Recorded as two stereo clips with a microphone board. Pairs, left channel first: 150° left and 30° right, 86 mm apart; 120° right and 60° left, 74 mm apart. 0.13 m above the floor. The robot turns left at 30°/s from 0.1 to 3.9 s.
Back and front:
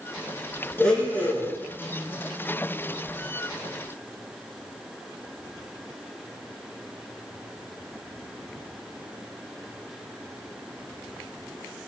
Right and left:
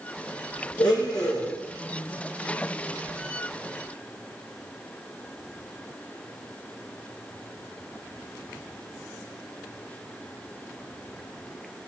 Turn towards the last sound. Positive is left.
turn(degrees=140)